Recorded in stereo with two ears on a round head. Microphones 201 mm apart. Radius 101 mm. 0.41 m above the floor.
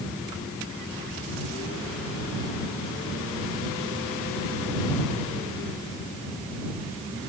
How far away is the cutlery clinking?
I don't hear cutlery clinking.